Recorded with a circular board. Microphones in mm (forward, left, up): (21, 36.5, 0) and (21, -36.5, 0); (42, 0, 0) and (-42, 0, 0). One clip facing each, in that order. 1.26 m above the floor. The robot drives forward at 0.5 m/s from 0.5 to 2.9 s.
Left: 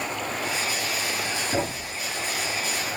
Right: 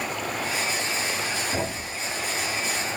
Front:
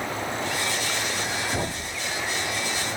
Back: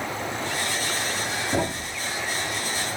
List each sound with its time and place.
1.5 s a thud: 160° left, 1.3 m